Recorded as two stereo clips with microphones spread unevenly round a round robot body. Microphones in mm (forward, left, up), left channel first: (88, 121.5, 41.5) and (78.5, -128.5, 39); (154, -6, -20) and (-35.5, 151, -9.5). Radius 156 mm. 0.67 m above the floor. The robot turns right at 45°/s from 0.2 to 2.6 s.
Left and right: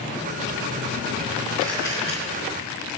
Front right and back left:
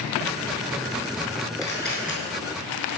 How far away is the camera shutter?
About 5 m.